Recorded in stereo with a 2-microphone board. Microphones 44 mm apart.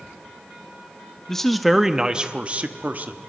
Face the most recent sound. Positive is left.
turn(degrees=-45)  # may be behind; listen again after turning